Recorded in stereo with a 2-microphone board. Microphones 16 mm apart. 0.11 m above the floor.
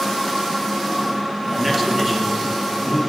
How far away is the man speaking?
About 1.9 m.